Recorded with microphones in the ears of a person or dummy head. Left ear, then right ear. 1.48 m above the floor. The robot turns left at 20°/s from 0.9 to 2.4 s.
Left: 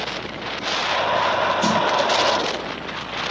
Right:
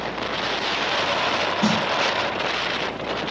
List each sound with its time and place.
1.6 s a snare drum: 35° left (ahead or behind), 3.5 m; by 1.8 s 40° left (ahead or behind), 3.5 m